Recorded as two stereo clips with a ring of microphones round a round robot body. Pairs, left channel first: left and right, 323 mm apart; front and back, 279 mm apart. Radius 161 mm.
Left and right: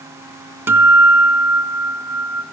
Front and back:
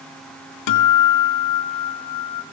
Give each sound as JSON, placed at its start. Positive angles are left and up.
{"t": 0.7, "sound": "a guitar", "azimuth_deg": -5, "distance_m": 2.5}